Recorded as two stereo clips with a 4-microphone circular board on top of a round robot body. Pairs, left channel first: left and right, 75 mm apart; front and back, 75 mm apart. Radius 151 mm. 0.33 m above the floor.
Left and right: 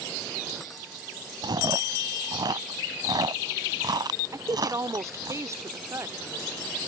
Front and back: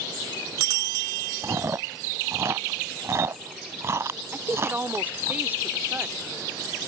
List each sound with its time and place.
1.4 s chewing: 125° right
4.3 s a woman speaking: 125° right